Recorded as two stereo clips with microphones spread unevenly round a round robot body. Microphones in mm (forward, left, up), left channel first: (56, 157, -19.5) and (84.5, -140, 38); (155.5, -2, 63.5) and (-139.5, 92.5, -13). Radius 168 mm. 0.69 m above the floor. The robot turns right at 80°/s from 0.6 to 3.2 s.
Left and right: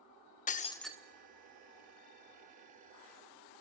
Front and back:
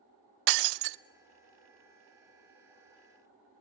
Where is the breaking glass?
165° left, 0.5 m; by 1.0 s 165° right, 0.5 m.